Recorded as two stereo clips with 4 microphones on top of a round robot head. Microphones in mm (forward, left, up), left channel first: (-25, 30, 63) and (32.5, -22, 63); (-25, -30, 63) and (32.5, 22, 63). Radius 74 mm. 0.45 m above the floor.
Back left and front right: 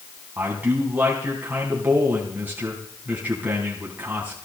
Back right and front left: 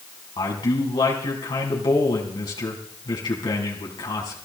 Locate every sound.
0.4 s a man speaking: 110° right, 4.5 m